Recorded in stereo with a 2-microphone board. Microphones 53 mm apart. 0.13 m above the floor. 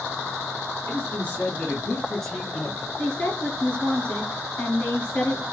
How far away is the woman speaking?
About 1.9 m.